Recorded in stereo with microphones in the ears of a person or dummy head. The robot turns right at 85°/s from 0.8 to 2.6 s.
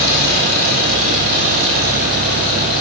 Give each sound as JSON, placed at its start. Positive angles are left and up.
{"t": 0.0, "sound": "an engine running", "azimuth_deg": -110, "distance_m": 7.5}